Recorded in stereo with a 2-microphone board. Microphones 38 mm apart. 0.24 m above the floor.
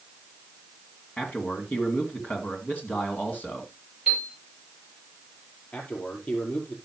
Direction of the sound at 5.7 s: 45° left (ahead or behind).